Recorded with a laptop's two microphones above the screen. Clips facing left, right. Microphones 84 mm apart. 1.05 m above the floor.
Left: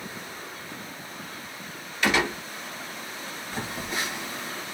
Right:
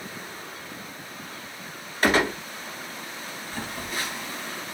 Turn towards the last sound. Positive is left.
turn(degrees=20)  # may be behind; listen again after turning